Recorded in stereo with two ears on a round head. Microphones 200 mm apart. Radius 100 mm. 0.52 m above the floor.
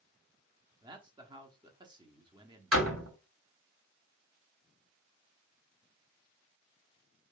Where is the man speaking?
20° right (ahead or behind), 0.9 m.